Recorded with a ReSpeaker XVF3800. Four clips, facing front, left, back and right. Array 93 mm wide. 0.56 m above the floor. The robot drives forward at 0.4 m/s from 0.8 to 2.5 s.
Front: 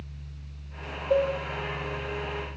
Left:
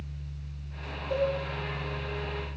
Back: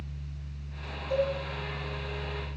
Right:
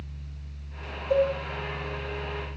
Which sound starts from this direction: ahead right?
A cowbell, at 1.1 s.